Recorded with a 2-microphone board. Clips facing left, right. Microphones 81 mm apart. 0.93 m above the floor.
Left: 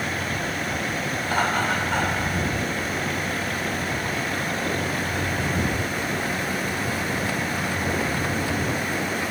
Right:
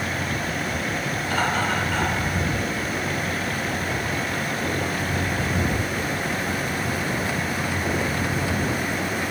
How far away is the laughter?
About 3 m.